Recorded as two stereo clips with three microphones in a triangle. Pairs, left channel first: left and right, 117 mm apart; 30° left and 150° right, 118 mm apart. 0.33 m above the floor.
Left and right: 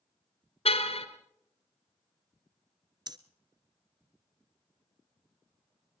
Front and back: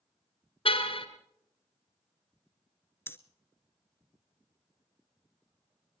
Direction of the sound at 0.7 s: 65° left.